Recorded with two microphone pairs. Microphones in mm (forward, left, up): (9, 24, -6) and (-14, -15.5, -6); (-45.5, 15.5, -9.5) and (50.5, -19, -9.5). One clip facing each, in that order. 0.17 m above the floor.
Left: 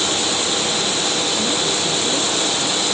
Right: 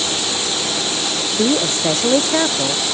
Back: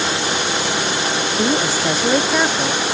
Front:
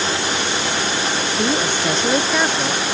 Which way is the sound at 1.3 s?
115° right.